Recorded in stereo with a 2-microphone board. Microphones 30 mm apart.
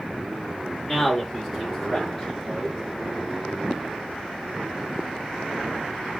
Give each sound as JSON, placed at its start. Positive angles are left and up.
{"t": 0.8, "sound": "a man speaking", "side_deg": 10, "distance_m": 3.0}